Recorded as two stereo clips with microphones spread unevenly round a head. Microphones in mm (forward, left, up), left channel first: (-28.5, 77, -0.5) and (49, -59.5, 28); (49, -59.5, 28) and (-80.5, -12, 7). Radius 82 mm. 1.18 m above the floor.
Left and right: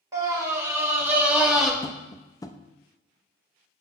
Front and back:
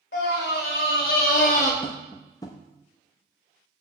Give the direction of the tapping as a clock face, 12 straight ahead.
10 o'clock.